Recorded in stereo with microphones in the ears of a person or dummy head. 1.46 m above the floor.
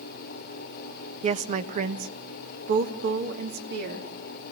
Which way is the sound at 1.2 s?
30° right (ahead or behind).